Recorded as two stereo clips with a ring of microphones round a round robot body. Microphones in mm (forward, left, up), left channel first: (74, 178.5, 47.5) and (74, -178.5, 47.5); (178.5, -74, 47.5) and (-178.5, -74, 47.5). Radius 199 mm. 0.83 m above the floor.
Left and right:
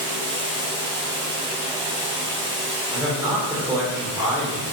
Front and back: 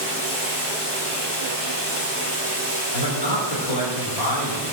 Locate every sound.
0.0 s running water: 30° right, 3.5 m
2.9 s a man speaking: 5° right, 3 m